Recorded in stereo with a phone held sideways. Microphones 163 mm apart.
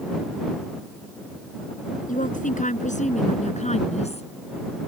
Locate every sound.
2.1 s a woman speaking: 50° left (ahead or behind); by 4.3 s 40° left (ahead or behind)